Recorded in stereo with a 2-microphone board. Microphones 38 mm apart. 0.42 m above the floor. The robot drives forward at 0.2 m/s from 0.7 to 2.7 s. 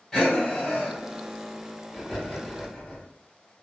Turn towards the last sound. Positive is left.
turn(degrees=5)  # may be behind; listen again after turning